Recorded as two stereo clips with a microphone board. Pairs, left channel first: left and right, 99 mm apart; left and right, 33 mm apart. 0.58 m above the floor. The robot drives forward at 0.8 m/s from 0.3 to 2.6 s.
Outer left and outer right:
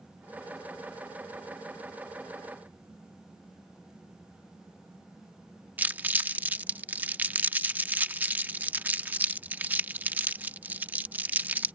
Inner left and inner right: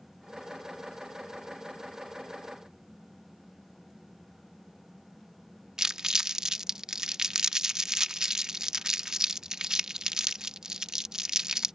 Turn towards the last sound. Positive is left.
turn(degrees=-20)  # may be behind; listen again after turning